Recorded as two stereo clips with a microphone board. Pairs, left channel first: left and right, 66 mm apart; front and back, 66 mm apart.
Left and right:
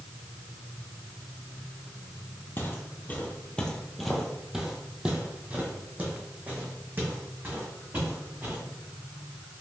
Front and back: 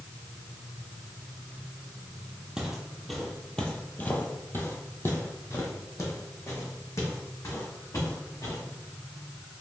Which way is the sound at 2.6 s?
110° left.